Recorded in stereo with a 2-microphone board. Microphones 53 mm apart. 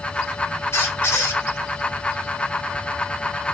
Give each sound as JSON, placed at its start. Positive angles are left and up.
{"t": 0.7, "sound": "a squeak", "side_deg": 60, "distance_m": 1.2}